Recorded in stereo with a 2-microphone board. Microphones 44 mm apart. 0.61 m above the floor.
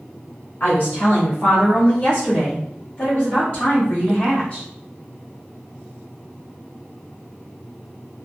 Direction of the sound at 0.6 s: 45° left (ahead or behind).